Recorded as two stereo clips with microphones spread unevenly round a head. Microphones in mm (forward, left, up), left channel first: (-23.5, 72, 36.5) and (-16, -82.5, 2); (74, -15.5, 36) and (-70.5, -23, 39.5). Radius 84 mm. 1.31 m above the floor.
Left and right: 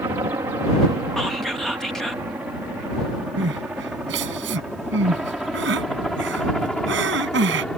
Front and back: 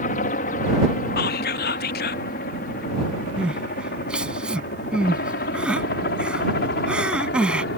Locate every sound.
0.0 s a helicopter: 15° right; by 7.8 s 5° left
1.2 s whispering: straight ahead
3.4 s crying: 95° right